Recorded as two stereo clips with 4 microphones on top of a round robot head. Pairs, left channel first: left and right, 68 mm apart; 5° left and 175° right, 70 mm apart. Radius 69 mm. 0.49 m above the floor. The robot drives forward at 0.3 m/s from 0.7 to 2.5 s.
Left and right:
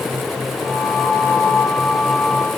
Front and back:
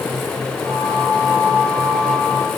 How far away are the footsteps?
I don't hear footsteps.